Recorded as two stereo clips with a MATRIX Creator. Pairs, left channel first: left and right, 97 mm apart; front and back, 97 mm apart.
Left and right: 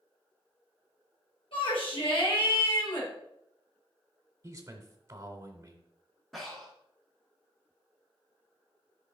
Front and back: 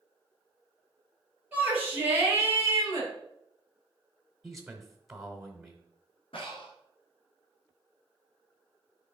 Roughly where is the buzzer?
No buzzer in this recording.